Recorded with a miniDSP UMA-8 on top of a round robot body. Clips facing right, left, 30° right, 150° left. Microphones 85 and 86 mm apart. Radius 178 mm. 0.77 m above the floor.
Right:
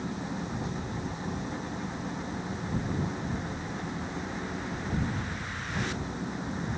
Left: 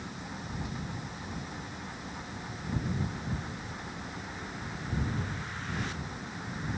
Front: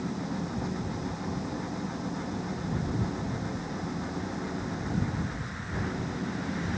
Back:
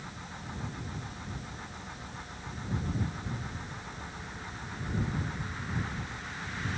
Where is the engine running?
30° right.